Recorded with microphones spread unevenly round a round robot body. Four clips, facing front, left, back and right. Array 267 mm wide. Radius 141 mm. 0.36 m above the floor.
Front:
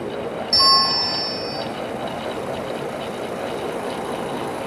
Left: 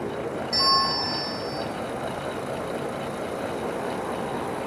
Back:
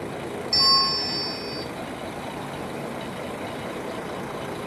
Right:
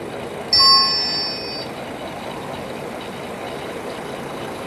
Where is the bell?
40° right, 1.0 m.